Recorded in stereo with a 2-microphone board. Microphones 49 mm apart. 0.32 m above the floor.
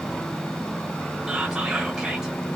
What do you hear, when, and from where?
1.3 s whispering: 15° right (ahead or behind), 1.2 m